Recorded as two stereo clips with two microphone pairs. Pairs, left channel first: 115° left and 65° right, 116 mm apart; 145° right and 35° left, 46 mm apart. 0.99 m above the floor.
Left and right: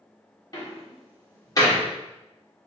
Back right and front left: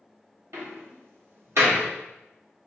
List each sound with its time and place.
0.5 s a door slam: 55° left, 1.5 m